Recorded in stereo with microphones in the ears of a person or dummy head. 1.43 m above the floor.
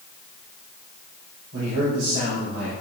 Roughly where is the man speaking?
Right.